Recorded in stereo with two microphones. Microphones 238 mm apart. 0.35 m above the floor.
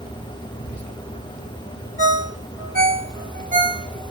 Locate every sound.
0.6 s whispering: 45° left (ahead or behind), 2 m
2.0 s a ringtone: 35° right (ahead or behind), 1.0 m